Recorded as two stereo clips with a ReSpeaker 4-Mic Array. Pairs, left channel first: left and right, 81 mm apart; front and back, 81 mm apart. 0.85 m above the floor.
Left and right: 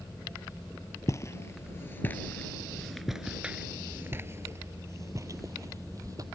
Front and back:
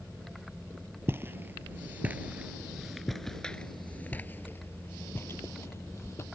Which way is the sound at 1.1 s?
130° left.